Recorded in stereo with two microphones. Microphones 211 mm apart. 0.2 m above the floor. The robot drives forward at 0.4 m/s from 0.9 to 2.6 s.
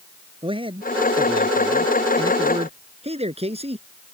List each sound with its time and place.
0.4 s a man speaking: 25° right (ahead or behind); by 3.9 s 30° right (ahead or behind)